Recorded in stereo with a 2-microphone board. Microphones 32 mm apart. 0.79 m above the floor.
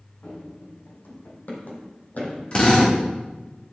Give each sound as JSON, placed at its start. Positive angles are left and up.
{"t": 0.2, "sound": "running footsteps", "side_deg": 70, "distance_m": 2.5}
{"t": 2.5, "sound": "a drill", "side_deg": 35, "distance_m": 2.0}